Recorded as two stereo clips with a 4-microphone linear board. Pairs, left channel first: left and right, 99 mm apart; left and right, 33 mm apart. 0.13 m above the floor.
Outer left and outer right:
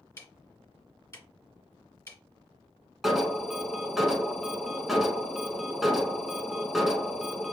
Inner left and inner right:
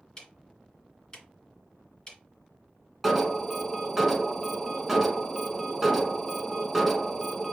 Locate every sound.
0.2 s ticking: 25° left (ahead or behind), 1.8 m
3.0 s an alarm: centre (ahead or behind), 0.8 m